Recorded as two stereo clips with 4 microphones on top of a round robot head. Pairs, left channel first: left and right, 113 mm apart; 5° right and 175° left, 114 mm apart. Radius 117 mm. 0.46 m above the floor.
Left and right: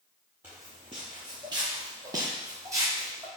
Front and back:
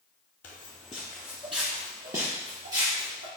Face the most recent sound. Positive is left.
turn(degrees=-155)